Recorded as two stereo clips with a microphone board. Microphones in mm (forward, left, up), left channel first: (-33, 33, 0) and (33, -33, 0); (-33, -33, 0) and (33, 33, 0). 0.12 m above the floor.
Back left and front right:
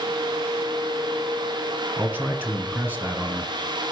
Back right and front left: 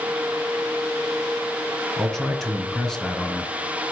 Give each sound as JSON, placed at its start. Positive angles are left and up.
{"t": 2.0, "sound": "a man speaking", "azimuth_deg": -65, "distance_m": 1.4}